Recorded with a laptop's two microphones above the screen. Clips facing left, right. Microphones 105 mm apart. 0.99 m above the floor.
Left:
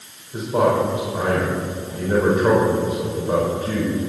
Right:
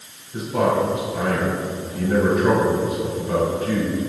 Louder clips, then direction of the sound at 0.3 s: Left 2 dB; 30° left (ahead or behind).